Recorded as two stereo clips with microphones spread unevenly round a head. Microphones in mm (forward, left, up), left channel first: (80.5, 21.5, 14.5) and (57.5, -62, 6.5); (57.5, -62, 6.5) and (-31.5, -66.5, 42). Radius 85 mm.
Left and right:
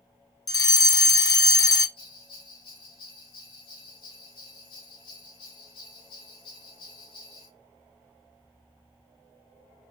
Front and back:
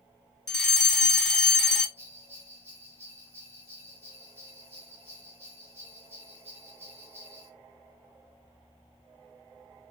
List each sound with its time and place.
0.5 s a fire alarm: 60° left, 0.6 m
2.0 s a bell: 120° left, 0.9 m